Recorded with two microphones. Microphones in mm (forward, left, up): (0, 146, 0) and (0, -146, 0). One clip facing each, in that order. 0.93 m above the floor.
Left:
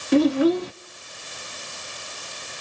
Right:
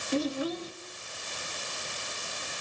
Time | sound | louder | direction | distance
0.1 | a child speaking | left 13 dB | 70° left (ahead or behind) | 0.6 m